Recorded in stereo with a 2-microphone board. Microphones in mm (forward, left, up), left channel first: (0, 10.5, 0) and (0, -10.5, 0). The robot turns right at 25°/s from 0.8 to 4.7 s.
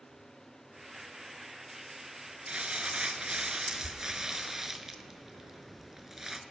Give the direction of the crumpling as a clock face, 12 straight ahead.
3 o'clock.